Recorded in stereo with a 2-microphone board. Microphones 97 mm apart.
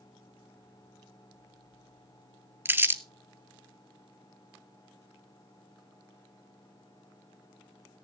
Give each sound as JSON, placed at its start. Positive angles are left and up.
{"t": 2.6, "sound": "crumpling", "side_deg": -25, "distance_m": 0.6}